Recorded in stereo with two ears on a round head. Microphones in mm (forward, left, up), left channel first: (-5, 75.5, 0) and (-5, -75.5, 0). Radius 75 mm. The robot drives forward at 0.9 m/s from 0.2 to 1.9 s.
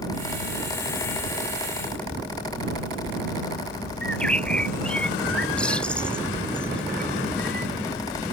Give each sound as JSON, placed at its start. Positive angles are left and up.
{"t": 4.0, "sound": "a bird", "side_deg": 5}